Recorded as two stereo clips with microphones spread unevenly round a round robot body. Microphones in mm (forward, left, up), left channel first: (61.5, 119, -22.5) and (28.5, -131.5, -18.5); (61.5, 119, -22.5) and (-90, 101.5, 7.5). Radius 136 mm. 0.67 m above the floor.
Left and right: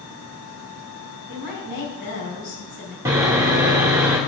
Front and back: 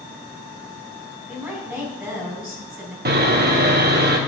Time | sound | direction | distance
1.3 | a woman speaking | 105° left | 6 m
3.0 | sawing | 175° right | 1.6 m